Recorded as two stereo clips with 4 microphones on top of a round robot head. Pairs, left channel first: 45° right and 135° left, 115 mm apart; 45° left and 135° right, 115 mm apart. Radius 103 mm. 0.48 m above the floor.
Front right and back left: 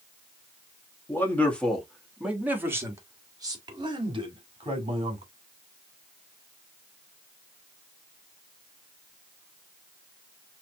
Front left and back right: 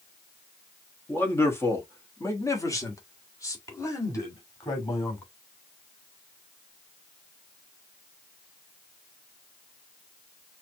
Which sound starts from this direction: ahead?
A man speaking, at 1.1 s.